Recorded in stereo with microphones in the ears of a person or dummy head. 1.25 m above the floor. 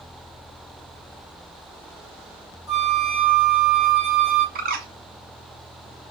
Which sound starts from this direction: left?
A flute, at 2.7 s.